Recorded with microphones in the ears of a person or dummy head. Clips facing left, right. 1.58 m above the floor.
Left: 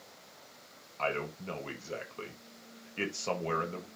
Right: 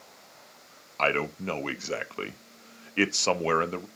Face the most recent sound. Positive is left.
turn(degrees=-85)